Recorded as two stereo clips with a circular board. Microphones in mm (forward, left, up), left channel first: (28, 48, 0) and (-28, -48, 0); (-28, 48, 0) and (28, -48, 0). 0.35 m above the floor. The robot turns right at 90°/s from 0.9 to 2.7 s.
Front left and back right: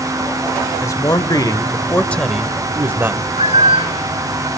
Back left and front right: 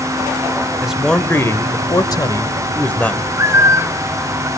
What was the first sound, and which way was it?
A man speaking, 20° left.